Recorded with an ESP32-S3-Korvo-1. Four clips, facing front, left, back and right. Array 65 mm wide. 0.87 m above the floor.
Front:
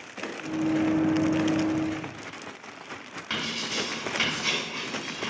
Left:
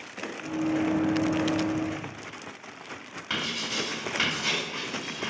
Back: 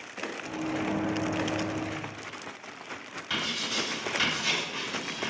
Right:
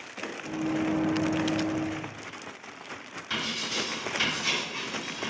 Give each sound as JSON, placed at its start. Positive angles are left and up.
{"t": 0.4, "sound": "a microwave", "azimuth_deg": 50, "distance_m": 0.9}
{"t": 3.3, "sound": "writing", "azimuth_deg": 50, "distance_m": 1.4}